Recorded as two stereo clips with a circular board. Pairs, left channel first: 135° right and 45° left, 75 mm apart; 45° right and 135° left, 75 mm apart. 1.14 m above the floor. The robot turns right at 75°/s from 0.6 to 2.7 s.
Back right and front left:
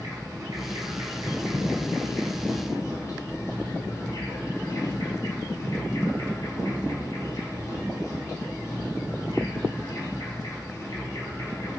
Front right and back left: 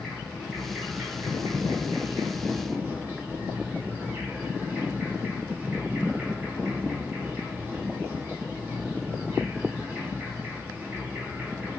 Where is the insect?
40° left, 1.1 m; by 11.8 s 165° right, 1.1 m.